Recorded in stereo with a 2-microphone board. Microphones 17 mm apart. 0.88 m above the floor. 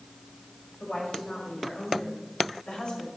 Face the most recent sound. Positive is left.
turn(degrees=75)  # may be behind; listen again after turning